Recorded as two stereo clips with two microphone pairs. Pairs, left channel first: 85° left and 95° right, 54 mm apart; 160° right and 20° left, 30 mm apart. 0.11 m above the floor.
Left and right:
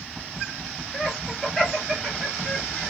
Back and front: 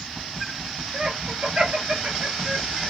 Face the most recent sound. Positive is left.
turn(degrees=-5)